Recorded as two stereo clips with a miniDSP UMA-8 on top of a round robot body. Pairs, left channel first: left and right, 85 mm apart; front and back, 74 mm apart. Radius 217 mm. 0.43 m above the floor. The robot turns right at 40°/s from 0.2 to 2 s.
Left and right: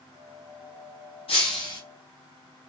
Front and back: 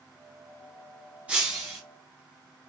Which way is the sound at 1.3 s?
105° left.